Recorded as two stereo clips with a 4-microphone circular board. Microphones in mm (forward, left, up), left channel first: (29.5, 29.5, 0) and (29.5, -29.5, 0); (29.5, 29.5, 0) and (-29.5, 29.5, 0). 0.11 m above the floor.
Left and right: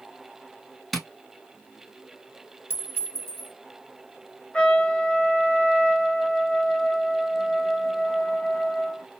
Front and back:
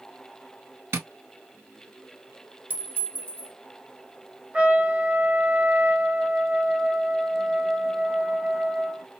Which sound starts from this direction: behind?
Tapping, at 0.9 s.